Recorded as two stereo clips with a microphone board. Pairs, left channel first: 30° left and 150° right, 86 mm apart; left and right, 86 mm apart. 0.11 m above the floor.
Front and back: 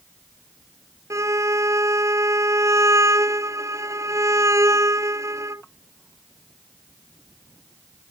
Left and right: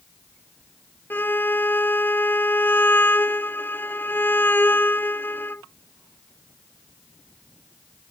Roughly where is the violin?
Behind.